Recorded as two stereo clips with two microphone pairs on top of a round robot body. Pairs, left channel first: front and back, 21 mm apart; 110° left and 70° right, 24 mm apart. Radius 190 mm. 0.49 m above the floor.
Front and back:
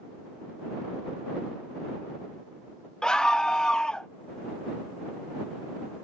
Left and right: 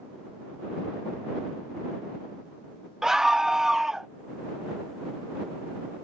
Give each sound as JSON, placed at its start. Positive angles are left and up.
{"t": 3.0, "sound": "a scream", "azimuth_deg": -20}